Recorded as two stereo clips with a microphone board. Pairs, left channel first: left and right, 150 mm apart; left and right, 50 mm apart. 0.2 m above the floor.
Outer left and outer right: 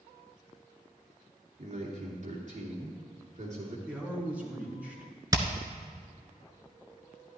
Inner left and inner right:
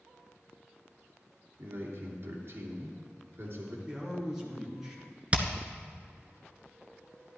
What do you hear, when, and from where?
1.6 s a man speaking: 50° right (ahead or behind), 3 m
3.9 s a man speaking: 10° right (ahead or behind), 3 m
5.3 s hammering: 25° right (ahead or behind), 1.0 m